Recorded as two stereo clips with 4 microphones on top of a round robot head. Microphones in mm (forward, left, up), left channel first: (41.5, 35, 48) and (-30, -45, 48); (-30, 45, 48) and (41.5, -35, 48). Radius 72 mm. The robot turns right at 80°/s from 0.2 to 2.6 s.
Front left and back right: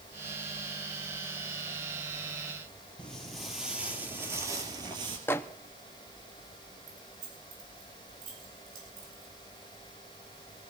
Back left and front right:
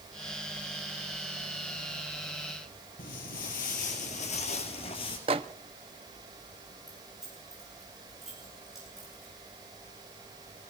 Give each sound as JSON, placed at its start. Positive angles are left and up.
{"t": 3.0, "sound": "footsteps", "azimuth_deg": 130, "distance_m": 3.0}
{"t": 5.3, "sound": "a microwave", "azimuth_deg": -20, "distance_m": 0.6}
{"t": 6.9, "sound": "keys jangling", "azimuth_deg": -135, "distance_m": 8.5}